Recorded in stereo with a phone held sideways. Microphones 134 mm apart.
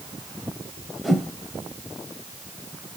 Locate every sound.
1.0 s a whoosh: centre (ahead or behind), 1.6 m